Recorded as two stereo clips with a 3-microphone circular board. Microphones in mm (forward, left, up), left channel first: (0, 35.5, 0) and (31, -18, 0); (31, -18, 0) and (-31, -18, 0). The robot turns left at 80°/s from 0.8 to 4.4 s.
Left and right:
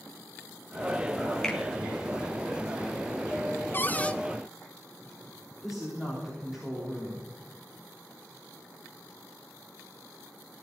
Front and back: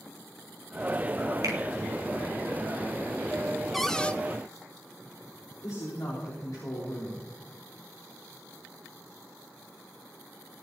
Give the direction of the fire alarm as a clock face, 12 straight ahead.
I don't hear a fire alarm.